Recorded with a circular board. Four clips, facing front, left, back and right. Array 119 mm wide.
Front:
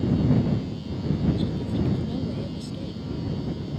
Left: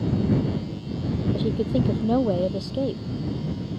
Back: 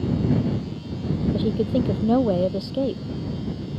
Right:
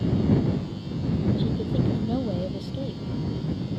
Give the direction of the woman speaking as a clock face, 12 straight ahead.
7 o'clock.